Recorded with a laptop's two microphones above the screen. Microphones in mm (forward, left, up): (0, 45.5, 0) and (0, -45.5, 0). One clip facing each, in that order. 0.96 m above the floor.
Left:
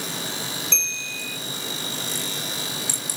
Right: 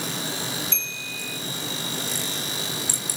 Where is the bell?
70° left (ahead or behind), 1.1 m.